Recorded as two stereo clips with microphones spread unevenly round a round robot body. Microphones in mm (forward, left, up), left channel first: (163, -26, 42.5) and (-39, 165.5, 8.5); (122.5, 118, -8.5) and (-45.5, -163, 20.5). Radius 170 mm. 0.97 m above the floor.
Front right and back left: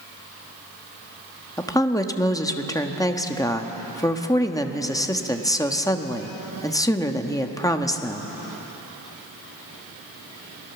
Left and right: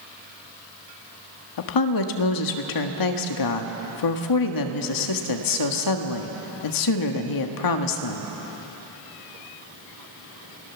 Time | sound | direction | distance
1.6 | a woman speaking | 35° left | 1.4 m